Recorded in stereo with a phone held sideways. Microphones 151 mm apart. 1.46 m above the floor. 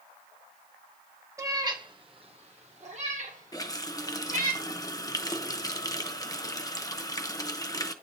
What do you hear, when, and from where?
1.4 s a cat meowing: 20° right (ahead or behind), 1.1 m; by 4.5 s 55° right (ahead or behind), 2.5 m
3.5 s a running tap: 25° left (ahead or behind), 0.8 m